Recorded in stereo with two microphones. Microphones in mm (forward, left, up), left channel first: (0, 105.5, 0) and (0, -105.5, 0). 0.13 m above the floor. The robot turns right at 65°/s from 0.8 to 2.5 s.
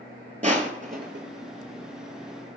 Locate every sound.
0.4 s crushing: 35° right (ahead or behind), 0.6 m; by 1.2 s 60° right (ahead or behind), 0.6 m